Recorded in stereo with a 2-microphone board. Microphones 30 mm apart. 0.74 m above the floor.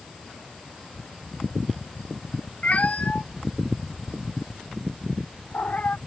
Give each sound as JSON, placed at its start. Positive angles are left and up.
{"t": 2.6, "sound": "a cat meowing", "side_deg": 50}